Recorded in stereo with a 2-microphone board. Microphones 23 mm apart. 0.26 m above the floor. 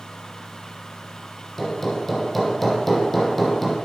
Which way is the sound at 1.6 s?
5° left (ahead or behind).